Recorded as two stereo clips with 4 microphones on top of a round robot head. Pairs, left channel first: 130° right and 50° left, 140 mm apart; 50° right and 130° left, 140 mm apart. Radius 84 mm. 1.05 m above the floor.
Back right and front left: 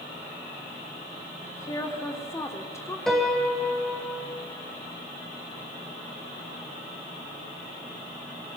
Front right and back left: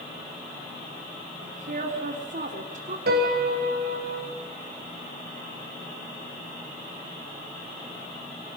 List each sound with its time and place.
1.4 s a woman speaking: 160° left, 3 m
3.1 s a piano: 145° left, 5 m